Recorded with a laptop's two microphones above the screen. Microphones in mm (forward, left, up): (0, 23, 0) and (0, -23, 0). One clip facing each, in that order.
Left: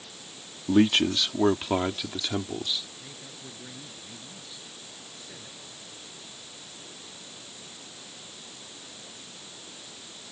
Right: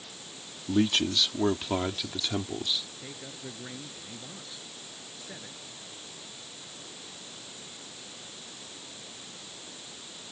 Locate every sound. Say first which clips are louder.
0.7 s a man speaking: left 5 dB; 35° left (ahead or behind); by 2.8 s 5° left (ahead or behind)
3.0 s a man speaking: right 2 dB; 20° right (ahead or behind)